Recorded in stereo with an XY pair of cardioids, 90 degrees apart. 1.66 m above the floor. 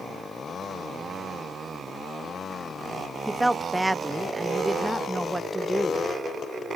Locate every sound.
3.3 s a woman speaking: 15° right, 1.0 m